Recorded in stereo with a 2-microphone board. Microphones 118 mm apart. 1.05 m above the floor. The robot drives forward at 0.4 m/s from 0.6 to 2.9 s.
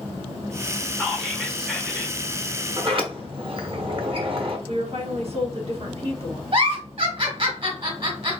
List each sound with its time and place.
0.9 s whispering: centre (ahead or behind), 0.8 m
2.8 s a sliding door: 50° right (ahead or behind), 0.9 m
4.7 s a woman speaking: 55° right (ahead or behind), 1.4 m
6.5 s a giggle: 50° right (ahead or behind), 1.9 m